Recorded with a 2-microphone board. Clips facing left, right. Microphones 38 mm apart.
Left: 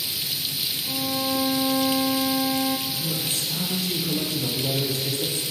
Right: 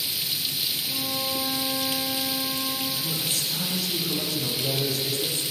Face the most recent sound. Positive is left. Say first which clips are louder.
# left 1 dB
turn(degrees=45)  # may be behind; listen again after turning